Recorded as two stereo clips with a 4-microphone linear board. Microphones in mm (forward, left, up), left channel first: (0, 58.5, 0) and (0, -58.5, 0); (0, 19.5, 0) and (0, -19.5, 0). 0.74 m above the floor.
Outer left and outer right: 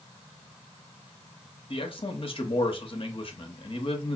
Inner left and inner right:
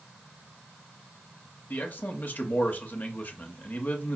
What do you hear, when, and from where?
1.7 s a man speaking: 50° left (ahead or behind), 0.8 m